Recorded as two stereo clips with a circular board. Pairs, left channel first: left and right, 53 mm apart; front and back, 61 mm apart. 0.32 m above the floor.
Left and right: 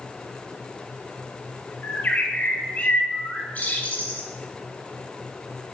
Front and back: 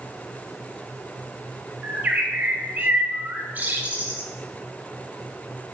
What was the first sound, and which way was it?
A bird, 135° left.